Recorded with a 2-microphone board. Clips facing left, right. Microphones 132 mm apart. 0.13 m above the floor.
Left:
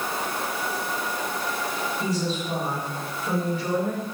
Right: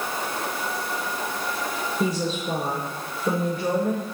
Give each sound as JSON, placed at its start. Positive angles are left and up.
{"t": 2.0, "sound": "a woman speaking", "side_deg": -50, "distance_m": 2.5}